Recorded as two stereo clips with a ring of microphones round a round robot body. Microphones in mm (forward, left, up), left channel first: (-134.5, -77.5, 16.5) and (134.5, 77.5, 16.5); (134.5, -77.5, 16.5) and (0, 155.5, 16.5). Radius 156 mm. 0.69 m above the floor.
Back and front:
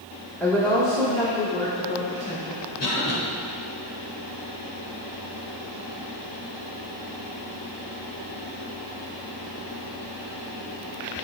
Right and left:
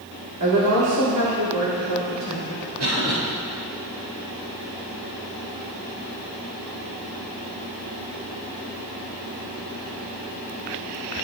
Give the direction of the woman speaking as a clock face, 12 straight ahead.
8 o'clock.